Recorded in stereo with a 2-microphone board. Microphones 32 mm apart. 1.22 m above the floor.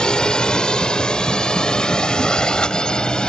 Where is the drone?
30° left (ahead or behind).